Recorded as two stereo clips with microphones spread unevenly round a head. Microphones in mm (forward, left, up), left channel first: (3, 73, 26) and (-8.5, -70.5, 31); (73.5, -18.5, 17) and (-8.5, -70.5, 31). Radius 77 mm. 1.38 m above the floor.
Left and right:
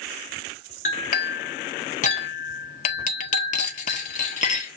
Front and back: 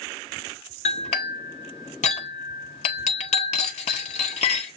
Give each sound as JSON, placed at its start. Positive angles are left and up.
{"t": 0.8, "sound": "a clink", "azimuth_deg": 50, "distance_m": 1.0}